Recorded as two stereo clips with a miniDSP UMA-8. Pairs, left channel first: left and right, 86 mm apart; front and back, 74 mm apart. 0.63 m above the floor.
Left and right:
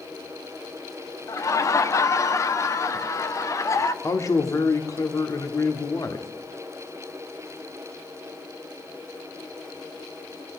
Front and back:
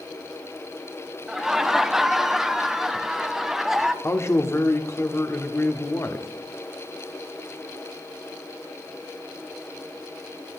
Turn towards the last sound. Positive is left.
turn(degrees=45)